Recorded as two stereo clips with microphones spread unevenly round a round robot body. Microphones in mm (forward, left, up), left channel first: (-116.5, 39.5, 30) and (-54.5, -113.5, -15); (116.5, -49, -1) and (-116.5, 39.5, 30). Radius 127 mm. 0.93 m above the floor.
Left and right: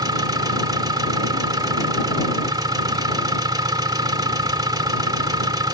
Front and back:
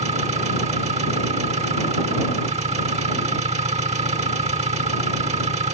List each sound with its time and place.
0.0 s an engine running: 135° right